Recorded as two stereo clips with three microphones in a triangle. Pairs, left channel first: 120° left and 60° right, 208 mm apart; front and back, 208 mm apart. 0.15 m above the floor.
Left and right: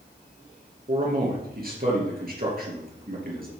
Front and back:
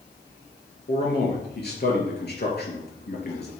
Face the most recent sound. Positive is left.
turn(degrees=-25)